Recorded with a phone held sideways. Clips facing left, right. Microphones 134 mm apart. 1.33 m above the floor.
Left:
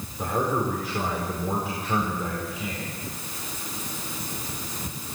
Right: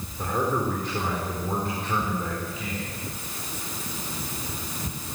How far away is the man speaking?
About 4.5 m.